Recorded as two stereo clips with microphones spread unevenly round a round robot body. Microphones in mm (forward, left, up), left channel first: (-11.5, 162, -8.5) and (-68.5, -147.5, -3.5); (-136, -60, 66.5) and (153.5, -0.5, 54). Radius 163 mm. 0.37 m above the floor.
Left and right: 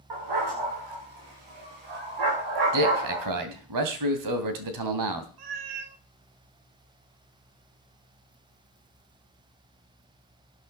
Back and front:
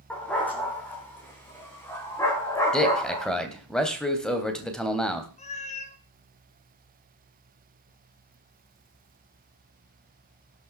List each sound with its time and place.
0.1 s a dog barking: 80° right, 9 m; by 3.3 s 90° right, 10 m
2.7 s a man speaking: 80° right, 3 m
5.4 s a cat meowing: 100° right, 1.7 m